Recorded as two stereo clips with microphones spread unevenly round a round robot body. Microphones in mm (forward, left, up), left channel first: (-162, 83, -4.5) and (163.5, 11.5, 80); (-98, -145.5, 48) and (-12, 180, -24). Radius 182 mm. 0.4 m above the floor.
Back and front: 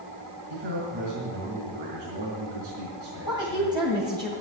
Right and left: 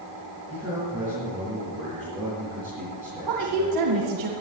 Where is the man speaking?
5° right, 5.5 m.